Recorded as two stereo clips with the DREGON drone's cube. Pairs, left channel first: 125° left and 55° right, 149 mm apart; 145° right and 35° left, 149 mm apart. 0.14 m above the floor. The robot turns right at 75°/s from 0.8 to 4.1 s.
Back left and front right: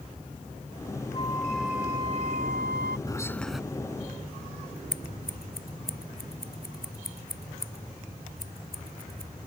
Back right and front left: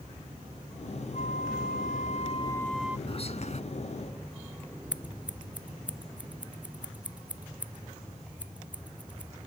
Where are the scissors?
115° left.